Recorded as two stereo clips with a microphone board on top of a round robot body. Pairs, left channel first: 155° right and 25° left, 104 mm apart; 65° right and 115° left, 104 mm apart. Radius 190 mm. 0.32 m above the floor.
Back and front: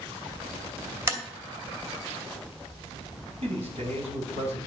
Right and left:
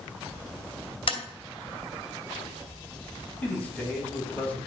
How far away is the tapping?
About 2.5 m.